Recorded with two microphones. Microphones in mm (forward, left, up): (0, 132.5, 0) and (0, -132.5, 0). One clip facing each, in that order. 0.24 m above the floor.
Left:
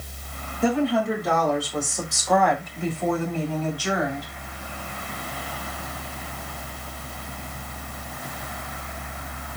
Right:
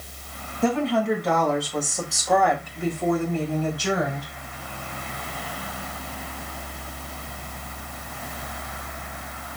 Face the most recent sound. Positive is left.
turn(degrees=-35)  # may be behind; listen again after turning